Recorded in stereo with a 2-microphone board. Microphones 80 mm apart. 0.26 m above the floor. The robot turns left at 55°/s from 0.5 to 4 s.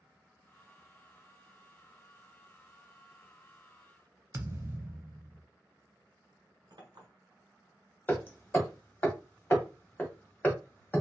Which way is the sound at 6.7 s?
65° right (ahead or behind).